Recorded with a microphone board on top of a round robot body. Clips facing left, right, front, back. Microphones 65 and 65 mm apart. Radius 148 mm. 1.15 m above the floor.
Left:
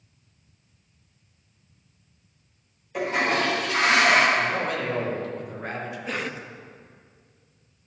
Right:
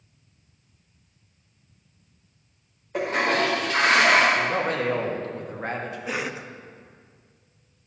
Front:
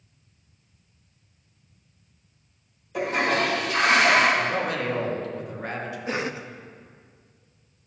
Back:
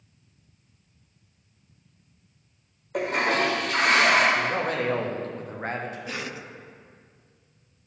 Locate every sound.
2.9 s a toilet flushing: 150° right, 1.1 m
4.3 s a man speaking: 130° right, 1.4 m
6.1 s a cough: 15° right, 0.6 m